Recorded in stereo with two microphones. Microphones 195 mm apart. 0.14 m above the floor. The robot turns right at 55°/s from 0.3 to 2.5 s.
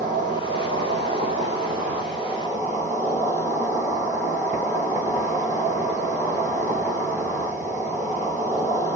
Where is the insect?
130° right, 1.4 m; by 9.0 s 10° right, 1.4 m.